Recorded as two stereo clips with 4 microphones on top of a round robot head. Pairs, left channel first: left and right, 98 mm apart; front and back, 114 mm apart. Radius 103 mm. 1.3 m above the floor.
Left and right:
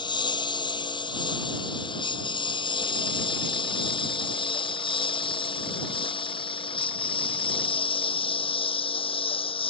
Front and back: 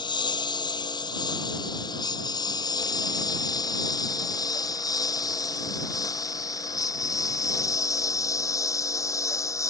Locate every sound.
0.0 s a lawn mower: 50° left; by 9.7 s 65° left